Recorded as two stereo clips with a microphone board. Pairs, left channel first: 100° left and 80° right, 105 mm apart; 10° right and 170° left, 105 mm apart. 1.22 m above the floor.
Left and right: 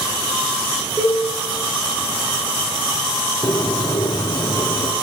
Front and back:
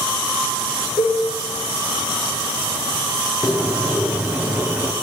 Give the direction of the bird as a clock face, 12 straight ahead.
9 o'clock.